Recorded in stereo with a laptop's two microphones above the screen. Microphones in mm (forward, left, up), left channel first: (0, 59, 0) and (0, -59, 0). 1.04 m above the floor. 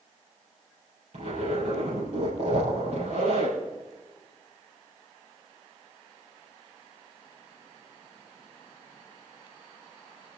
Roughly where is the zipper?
Right.